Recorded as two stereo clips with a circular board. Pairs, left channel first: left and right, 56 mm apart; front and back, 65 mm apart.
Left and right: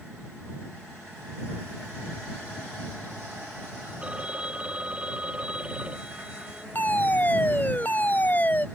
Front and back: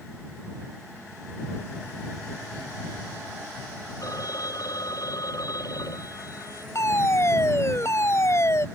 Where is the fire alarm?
35° left.